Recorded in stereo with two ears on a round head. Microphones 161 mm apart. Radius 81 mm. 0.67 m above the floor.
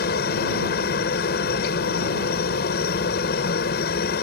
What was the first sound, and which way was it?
A helicopter, 60° left (ahead or behind).